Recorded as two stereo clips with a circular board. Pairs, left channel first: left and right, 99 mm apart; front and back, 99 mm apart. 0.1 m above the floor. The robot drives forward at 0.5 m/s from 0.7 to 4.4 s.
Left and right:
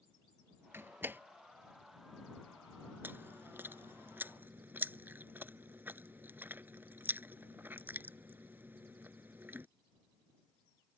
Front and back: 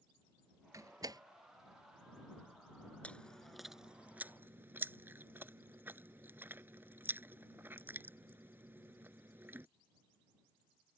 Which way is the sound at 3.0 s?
55° right.